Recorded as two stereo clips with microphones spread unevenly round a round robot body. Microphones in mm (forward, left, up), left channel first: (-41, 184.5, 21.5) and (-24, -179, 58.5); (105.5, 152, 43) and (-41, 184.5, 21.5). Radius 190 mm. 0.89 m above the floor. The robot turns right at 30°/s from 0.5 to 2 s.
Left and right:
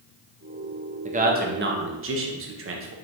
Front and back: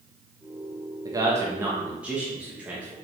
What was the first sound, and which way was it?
A man speaking, 155° right.